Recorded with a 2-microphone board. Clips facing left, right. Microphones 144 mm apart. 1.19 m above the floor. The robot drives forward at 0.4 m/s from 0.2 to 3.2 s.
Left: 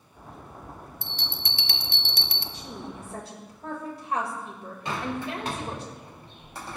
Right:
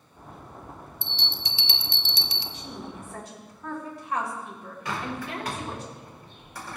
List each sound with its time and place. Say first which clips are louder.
1.0 s a bell: right 1 dB; 45° left (ahead or behind), 0.6 m; by 2.4 s 50° left (ahead or behind), 0.5 m
2.5 s a woman speaking: even; 40° left (ahead or behind), 1.7 m; by 5.8 s 35° left (ahead or behind), 1.9 m
4.8 s a bird: left 2 dB; 25° left (ahead or behind), 2 m